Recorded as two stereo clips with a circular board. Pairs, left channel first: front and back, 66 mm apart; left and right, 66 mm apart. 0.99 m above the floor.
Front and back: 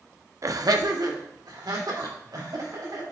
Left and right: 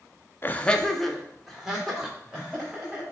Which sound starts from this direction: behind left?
Laughter, at 0.4 s.